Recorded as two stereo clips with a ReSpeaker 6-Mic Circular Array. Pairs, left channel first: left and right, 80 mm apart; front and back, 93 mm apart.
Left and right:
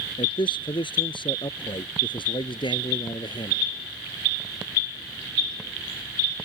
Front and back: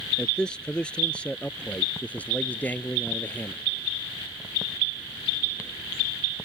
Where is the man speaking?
80° left; by 3.6 s 70° left.